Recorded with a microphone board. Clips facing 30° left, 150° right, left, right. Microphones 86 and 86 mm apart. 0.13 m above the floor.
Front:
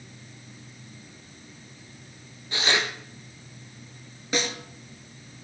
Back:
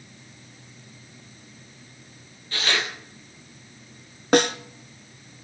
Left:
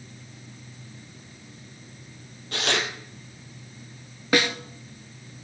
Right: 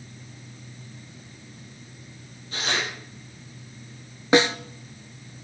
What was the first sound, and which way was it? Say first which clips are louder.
Tearing paper: front 1 dB, left 2 dB; 100° left.